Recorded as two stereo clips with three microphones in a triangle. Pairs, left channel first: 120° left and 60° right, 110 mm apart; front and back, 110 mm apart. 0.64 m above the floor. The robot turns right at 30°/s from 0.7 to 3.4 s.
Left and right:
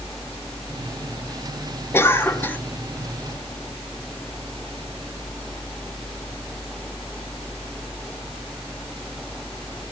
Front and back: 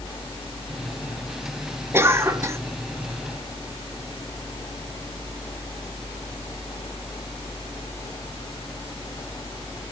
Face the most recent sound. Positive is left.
turn(degrees=-165)